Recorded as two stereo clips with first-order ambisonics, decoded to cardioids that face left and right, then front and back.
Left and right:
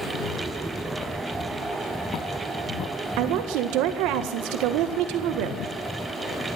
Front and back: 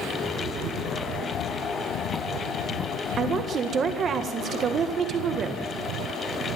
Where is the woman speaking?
115° right, 1.6 m.